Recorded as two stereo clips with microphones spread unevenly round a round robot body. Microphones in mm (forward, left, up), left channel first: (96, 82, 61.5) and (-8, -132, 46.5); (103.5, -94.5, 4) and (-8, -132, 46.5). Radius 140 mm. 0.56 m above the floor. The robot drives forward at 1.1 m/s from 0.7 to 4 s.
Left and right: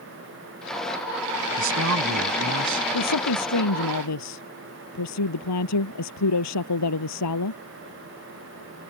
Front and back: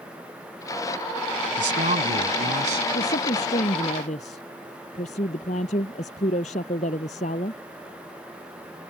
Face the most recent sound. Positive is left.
turn(degrees=65)